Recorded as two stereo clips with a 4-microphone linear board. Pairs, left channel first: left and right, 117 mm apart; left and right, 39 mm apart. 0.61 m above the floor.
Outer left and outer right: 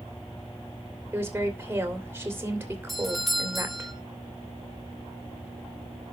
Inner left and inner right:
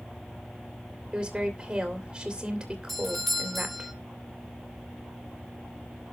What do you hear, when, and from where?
1.1 s a woman speaking: 20° right (ahead or behind), 3 m
2.9 s a doorbell: centre (ahead or behind), 2 m